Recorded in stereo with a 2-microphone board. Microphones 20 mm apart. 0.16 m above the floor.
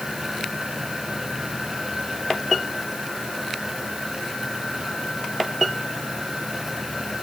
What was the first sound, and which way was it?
Only background noise.